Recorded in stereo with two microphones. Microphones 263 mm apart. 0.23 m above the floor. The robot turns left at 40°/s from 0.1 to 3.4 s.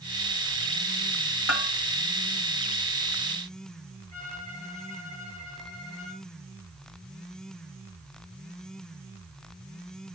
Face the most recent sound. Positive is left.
turn(degrees=-30)  # may be behind; listen again after turning